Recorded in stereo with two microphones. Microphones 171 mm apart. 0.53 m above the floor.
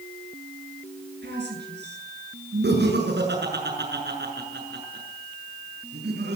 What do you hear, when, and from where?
1.2 s a woman speaking: 85° right, 8 m
2.6 s laughter: 85° right, 6.5 m